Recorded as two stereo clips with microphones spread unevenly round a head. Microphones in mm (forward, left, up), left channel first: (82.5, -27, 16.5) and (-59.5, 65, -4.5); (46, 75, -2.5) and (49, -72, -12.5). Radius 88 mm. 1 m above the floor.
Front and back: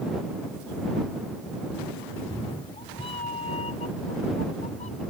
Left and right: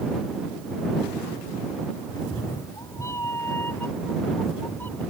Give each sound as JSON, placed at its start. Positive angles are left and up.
{"t": 2.1, "sound": "a cat meowing", "azimuth_deg": 30}